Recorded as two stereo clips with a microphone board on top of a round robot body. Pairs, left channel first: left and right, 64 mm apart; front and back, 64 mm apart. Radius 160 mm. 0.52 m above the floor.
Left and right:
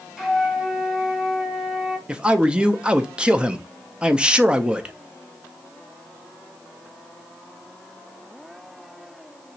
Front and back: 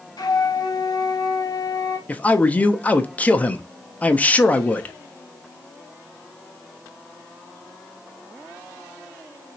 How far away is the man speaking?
About 0.7 m.